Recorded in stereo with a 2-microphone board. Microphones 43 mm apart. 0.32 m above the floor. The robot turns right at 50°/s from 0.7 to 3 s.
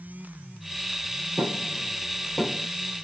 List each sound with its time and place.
1.4 s knocking: 55° right (ahead or behind), 7.5 m; by 2.7 s 10° left (ahead or behind), 7.5 m